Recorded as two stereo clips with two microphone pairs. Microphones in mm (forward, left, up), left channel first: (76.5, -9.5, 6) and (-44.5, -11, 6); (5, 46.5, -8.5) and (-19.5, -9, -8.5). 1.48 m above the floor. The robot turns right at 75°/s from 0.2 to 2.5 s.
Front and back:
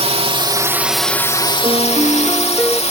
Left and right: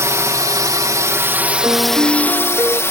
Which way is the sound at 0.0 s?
150° right.